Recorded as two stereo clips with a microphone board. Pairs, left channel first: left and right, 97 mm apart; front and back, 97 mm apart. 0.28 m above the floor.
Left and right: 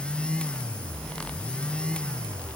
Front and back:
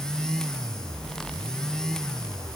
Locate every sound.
Only background noise.